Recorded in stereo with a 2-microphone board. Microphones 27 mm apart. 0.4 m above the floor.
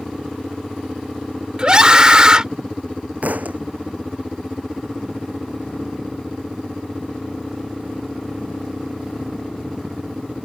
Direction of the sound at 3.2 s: 65° right (ahead or behind).